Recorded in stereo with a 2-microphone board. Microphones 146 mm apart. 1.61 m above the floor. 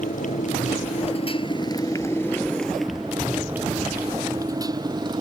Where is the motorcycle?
65° left (ahead or behind); by 5.2 s 30° right (ahead or behind).